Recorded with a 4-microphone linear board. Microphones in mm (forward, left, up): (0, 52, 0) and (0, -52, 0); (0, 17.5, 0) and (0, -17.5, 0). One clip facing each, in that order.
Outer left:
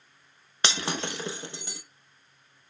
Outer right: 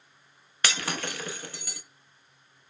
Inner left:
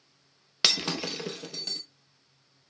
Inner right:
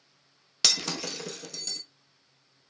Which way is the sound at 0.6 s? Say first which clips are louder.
Outer left 1 dB, inner left 2 dB; 25° left (ahead or behind).